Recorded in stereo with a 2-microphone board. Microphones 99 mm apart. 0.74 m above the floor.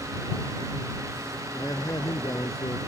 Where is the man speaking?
40° left (ahead or behind).